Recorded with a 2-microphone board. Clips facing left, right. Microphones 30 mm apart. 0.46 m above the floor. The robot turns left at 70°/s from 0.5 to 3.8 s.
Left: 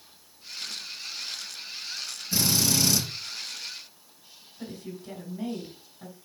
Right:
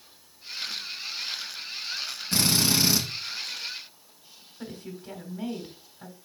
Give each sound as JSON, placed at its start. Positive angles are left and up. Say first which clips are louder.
{"t": 2.3, "sound": "a drill", "louder": "right 1 dB", "azimuth_deg": -120, "distance_m": 2.5}
{"t": 4.6, "sound": "a woman speaking", "louder": "even", "side_deg": -10, "distance_m": 3.0}